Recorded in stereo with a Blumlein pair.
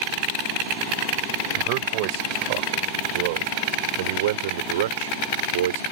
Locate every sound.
1.6 s a man speaking: 45° right; by 5.8 s 65° right